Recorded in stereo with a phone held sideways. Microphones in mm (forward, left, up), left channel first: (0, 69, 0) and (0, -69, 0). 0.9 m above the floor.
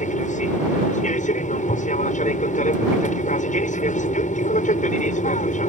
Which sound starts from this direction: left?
An aircraft, at 0.0 s.